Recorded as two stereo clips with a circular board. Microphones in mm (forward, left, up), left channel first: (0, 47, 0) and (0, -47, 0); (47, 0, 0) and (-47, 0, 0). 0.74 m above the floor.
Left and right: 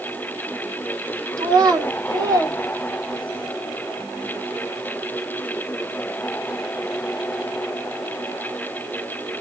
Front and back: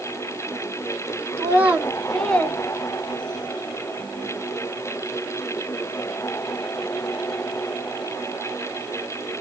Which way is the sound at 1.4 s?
125° right.